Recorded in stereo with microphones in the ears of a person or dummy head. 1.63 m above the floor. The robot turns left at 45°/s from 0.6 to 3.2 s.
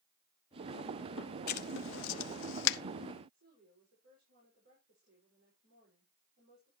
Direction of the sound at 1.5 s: 55° left (ahead or behind).